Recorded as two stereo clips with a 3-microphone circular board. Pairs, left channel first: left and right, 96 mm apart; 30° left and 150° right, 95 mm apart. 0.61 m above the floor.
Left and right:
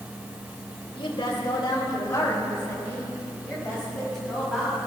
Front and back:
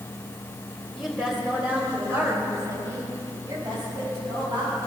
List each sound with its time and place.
0.9 s a woman speaking: 120° left, 3 m; by 4.8 s straight behind, 5 m